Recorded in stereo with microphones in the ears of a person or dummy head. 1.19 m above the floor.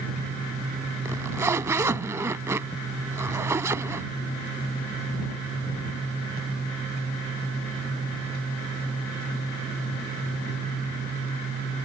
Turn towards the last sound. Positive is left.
turn(degrees=-20)  # may be behind; listen again after turning